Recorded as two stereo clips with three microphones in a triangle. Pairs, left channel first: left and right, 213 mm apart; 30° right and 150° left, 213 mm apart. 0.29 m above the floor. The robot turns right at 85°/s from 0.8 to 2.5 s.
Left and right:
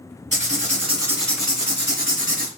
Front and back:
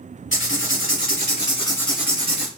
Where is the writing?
35° right, 1.4 m; by 2.5 s 105° left, 1.4 m.